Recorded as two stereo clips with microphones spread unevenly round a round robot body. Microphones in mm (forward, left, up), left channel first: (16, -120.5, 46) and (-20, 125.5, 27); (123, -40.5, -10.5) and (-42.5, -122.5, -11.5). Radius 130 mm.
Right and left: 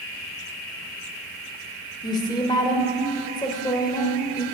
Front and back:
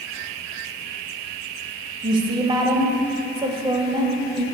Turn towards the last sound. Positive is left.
turn(degrees=-145)